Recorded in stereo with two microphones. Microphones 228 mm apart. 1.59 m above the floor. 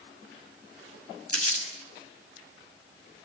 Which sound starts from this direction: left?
Crumpling, at 1.3 s.